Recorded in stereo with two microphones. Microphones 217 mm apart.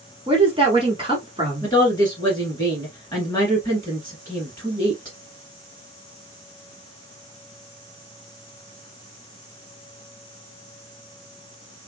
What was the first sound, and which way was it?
A woman speaking, 25° right (ahead or behind).